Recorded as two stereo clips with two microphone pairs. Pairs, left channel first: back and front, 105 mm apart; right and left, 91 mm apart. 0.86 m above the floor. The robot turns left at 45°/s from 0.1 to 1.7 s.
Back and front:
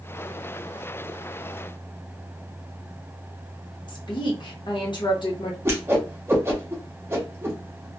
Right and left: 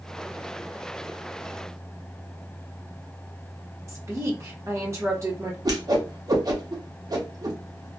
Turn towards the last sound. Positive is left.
turn(degrees=60)